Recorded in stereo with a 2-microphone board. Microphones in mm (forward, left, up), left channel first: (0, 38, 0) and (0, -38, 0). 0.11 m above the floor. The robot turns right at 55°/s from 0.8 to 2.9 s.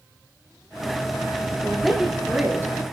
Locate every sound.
1.6 s a woman speaking: 165° left, 1.6 m; by 2.8 s 130° right, 1.6 m